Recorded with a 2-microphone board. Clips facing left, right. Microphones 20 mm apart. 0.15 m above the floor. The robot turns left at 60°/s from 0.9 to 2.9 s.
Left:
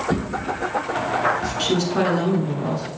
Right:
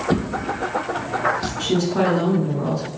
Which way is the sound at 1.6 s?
40° left.